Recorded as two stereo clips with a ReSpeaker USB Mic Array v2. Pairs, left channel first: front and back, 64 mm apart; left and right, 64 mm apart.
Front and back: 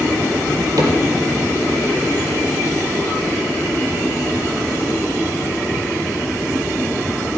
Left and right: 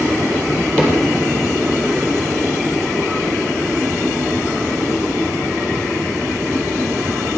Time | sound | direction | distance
0.8 | a cupboard door | 160° left | 4 m